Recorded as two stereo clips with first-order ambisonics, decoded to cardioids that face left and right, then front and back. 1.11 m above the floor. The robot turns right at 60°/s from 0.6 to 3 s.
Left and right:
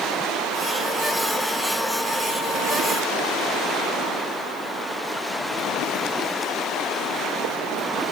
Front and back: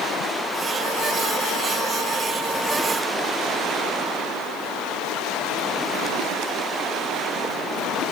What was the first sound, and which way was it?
Only background noise.